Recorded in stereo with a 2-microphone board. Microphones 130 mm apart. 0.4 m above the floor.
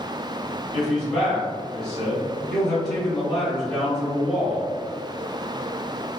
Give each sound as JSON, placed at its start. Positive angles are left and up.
{"t": 0.7, "sound": "a man speaking", "side_deg": 5, "distance_m": 1.6}